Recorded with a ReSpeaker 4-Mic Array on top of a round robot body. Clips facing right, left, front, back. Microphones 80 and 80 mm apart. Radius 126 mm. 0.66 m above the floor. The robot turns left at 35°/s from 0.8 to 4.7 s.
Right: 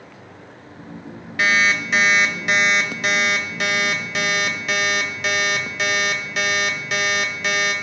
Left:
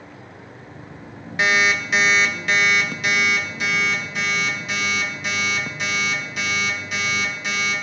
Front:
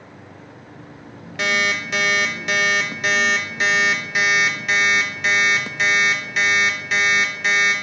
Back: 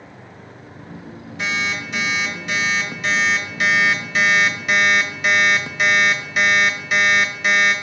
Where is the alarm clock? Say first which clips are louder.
Right 1 dB, front 3 dB; 20° left, 0.8 m; by 7.7 s 95° right, 0.8 m.